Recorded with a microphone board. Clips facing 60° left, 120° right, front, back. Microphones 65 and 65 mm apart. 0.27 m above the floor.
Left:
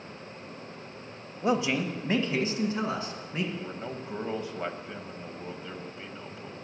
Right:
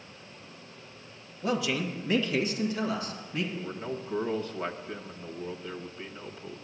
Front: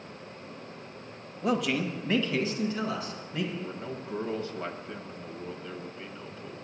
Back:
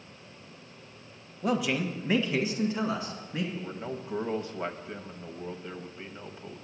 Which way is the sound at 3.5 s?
125° left.